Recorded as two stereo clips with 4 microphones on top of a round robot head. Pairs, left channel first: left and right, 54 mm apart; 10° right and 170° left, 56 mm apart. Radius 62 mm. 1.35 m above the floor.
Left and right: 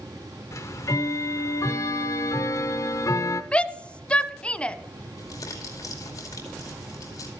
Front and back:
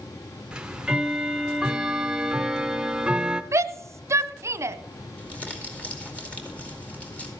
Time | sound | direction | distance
0.5 | ticking | 95° left | 0.7 m
3.5 | a shout | 160° left | 0.8 m
5.2 | crumpling | 60° left | 2.5 m